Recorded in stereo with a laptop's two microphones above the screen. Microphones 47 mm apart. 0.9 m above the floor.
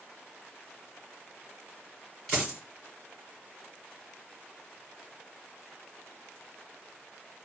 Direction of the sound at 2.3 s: 10° left (ahead or behind).